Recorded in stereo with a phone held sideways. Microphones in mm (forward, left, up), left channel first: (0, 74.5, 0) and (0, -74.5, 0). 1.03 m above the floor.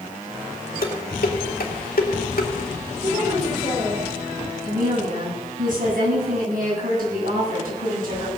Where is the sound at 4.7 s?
70° right (ahead or behind), 9 m.